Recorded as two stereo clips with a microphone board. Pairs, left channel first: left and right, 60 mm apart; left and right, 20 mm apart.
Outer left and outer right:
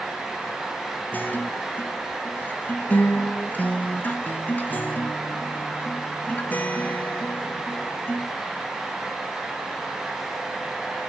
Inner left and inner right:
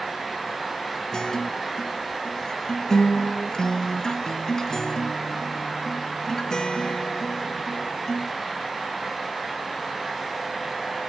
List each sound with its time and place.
1.1 s a guitar: 30° left (ahead or behind), 0.7 m